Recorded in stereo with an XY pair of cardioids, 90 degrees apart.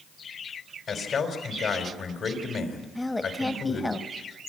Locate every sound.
0.9 s a man speaking: 60° left, 5 m
3.0 s a woman speaking: 15° left, 1.7 m